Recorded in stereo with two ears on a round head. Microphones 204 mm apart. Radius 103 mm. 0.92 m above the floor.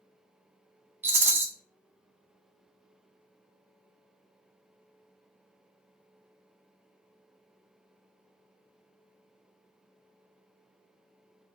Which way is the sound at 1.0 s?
10° right (ahead or behind).